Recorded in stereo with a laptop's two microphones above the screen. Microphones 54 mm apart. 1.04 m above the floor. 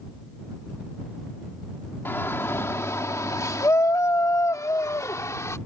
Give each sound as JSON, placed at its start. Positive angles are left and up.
{"t": 2.0, "sound": "a shout", "side_deg": 45}